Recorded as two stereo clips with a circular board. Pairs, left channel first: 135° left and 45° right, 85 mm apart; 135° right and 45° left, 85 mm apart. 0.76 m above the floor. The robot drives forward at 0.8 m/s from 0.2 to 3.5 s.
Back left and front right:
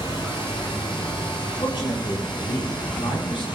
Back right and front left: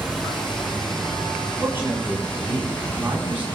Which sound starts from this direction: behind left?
Running water, at 0.0 s.